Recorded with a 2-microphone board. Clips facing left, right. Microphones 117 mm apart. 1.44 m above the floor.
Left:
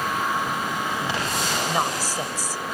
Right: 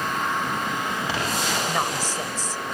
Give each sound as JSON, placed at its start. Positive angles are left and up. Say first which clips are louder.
{"t": 1.7, "sound": "a woman speaking", "louder": "left 1 dB", "side_deg": 10}